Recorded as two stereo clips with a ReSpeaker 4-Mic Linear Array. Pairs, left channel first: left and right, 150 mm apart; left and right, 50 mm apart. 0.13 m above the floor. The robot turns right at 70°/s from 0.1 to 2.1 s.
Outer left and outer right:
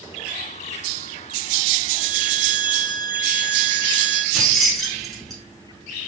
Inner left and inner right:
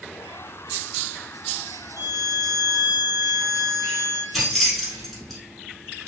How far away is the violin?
About 0.7 m.